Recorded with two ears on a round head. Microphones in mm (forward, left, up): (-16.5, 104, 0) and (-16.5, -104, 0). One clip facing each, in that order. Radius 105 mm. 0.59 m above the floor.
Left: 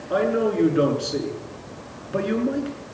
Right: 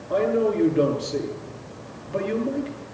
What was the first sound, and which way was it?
A man speaking, 10° left (ahead or behind).